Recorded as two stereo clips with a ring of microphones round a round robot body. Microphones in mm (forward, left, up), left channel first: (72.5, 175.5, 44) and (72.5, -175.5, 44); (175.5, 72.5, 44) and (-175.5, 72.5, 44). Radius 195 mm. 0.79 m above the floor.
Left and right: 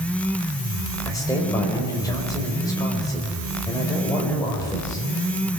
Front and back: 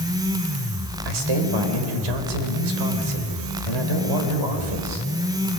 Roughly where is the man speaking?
Behind.